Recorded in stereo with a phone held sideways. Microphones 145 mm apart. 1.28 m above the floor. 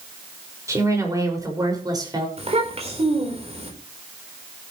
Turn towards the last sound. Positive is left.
turn(degrees=-45)  # may be behind; listen again after turning